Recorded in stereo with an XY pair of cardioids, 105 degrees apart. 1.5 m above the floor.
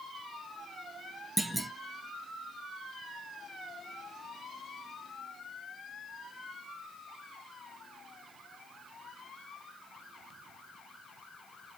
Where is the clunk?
10° right, 1.5 m.